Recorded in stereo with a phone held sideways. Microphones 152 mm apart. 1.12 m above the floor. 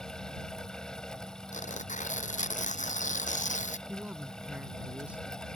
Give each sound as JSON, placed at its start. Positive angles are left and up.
{"t": 0.0, "sound": "a fan", "side_deg": 5}
{"t": 1.5, "sound": "tearing paper", "side_deg": 55}
{"t": 3.9, "sound": "a man speaking", "side_deg": -5}